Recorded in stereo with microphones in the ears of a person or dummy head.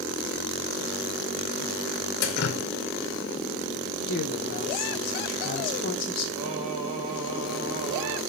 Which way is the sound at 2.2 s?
60° left (ahead or behind).